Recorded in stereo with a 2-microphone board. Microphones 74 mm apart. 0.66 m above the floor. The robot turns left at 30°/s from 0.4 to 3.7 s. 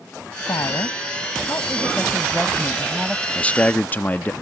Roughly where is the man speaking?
Centre.